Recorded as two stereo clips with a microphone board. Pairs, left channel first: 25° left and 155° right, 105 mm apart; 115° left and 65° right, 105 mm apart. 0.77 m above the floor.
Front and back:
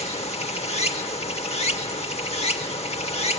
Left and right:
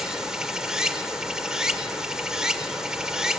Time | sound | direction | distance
0.0 | running water | 15° left | 1.0 m